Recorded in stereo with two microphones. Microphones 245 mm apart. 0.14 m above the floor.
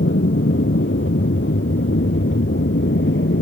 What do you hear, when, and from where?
0.0 s an aircraft: 50° left (ahead or behind)